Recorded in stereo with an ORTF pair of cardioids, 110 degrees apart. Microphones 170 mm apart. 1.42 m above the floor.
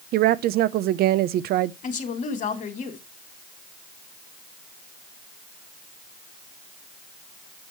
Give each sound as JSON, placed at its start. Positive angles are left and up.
{"t": 0.1, "sound": "a woman speaking", "azimuth_deg": -70, "distance_m": 0.7}
{"t": 1.8, "sound": "a woman speaking", "azimuth_deg": 50, "distance_m": 2.5}